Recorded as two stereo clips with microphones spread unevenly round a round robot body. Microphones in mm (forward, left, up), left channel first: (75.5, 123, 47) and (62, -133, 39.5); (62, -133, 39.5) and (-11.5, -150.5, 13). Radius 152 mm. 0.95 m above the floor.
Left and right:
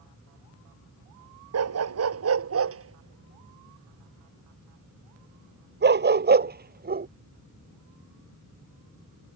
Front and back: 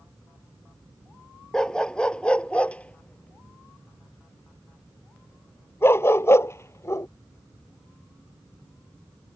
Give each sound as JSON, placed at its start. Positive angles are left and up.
{"t": 1.5, "sound": "a dog barking", "azimuth_deg": -65}